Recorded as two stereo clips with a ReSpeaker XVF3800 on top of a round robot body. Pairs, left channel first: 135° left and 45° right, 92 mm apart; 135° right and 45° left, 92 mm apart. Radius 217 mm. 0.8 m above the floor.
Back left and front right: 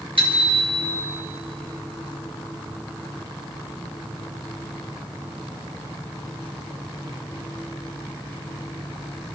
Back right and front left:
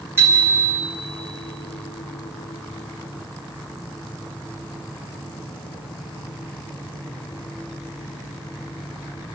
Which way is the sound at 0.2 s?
20° right.